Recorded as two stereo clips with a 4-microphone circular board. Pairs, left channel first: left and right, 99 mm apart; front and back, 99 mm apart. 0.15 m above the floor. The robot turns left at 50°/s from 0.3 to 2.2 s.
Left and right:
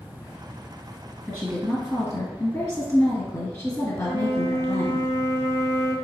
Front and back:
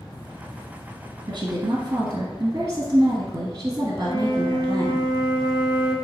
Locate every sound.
1.3 s a woman speaking: 175° right, 1.6 m; by 5.0 s 140° left, 1.6 m
4.0 s a flute: 35° left, 0.9 m